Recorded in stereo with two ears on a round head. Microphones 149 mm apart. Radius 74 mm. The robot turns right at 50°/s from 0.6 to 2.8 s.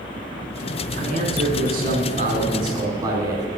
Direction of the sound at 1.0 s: 120° right.